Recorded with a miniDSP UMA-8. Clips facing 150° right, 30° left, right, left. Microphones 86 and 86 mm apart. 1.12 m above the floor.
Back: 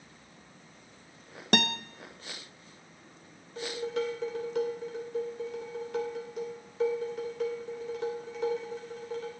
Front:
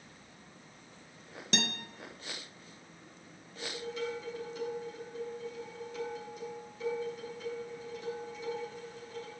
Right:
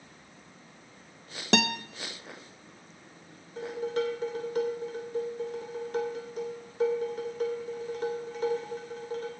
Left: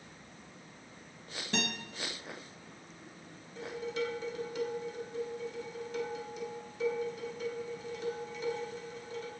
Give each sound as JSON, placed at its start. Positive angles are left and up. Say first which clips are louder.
{"t": 1.5, "sound": "a guitar", "louder": "back 7 dB, right 9 dB", "azimuth_deg": -115, "distance_m": 0.6}
{"t": 3.6, "sound": "dishes clattering", "louder": "back 6 dB, right 6 dB", "azimuth_deg": -135, "distance_m": 2.5}